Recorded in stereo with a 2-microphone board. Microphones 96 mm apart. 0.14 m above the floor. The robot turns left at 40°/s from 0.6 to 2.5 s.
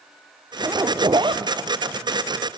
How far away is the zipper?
About 0.8 m.